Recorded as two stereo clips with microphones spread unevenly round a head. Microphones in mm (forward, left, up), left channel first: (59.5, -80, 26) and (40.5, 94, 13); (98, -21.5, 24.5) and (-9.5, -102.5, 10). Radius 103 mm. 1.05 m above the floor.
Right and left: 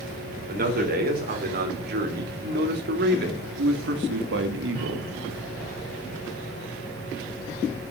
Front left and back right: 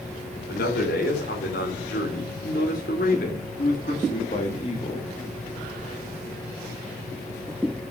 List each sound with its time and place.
0.5 s a man speaking: 65° left, 4.5 m; by 5.1 s 105° left, 2.0 m